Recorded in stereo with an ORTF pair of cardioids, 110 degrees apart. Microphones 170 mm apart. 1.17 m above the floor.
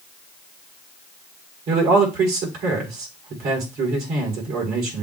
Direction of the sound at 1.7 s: 70° right.